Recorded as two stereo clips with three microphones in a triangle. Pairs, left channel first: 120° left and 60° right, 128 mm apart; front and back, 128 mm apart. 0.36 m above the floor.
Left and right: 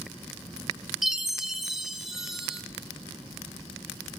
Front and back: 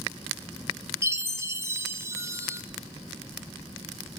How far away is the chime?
About 1.0 m.